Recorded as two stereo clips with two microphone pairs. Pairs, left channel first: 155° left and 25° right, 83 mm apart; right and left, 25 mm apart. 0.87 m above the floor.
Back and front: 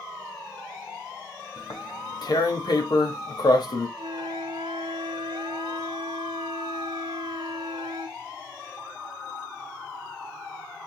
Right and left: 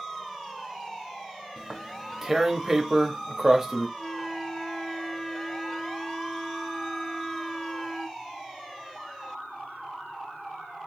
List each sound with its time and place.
1.6 s tearing paper: 160° left, 1.0 m
4.0 s a flute: 15° right, 0.9 m